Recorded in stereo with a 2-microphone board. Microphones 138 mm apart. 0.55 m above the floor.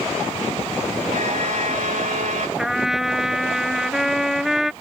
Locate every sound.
1.1 s a violin: 70° right (ahead or behind)
2.6 s a trumpet: 5° right (ahead or behind)